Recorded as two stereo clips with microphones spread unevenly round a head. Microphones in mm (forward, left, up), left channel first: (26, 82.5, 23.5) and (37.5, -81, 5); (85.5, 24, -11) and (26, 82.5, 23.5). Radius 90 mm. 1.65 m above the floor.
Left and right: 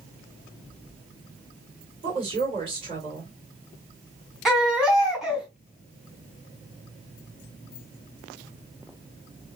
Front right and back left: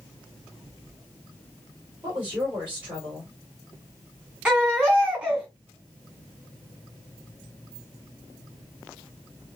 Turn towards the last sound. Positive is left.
turn(degrees=180)